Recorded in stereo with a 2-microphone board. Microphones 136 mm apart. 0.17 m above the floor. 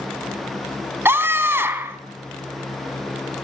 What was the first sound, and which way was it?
A scream, 15° right (ahead or behind).